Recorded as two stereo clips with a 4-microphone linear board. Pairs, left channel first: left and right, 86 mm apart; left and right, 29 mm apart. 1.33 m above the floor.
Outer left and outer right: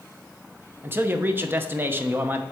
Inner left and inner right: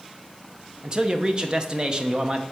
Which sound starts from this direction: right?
A man speaking, at 0.8 s.